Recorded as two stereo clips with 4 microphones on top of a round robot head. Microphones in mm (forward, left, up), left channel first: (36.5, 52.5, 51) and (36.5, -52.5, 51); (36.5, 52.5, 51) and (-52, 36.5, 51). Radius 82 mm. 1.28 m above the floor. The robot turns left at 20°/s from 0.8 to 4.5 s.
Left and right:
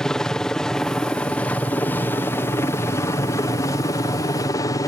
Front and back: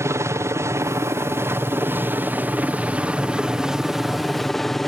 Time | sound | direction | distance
0.0 | a helicopter | 170° left | ?